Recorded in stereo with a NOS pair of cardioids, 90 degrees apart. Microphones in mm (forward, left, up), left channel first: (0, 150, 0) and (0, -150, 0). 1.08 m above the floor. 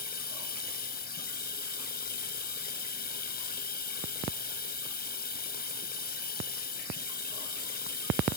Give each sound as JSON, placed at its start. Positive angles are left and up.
{"t": 0.0, "sound": "running water", "azimuth_deg": 30}